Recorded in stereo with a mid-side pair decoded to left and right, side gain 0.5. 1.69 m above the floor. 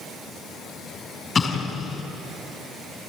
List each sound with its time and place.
1.4 s an explosion: 35° left, 5 m